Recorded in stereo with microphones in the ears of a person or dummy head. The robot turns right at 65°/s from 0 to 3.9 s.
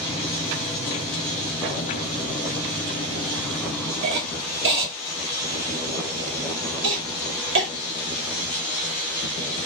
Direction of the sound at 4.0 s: 65° right (ahead or behind).